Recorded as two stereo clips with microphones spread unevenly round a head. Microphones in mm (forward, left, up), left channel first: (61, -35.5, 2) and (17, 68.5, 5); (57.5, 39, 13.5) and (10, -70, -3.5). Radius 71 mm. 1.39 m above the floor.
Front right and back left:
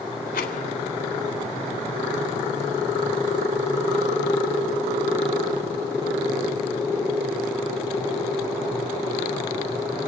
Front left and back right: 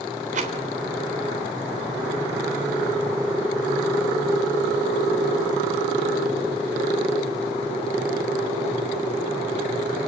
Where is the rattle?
95° right, 3.5 m.